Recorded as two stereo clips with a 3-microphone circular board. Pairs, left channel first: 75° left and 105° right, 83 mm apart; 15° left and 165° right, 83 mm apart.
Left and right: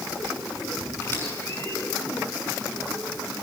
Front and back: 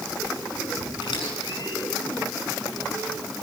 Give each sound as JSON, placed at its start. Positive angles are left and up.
{"t": 1.0, "sound": "a squeak", "azimuth_deg": 15, "distance_m": 6.0}